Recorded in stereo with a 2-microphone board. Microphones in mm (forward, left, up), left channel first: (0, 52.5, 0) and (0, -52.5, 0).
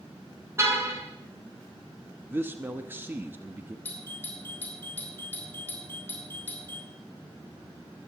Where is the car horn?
25° right (ahead or behind), 4 m.